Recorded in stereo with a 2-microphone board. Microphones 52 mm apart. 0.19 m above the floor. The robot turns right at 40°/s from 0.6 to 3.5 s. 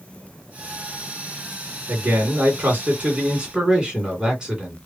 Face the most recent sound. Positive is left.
turn(degrees=-20)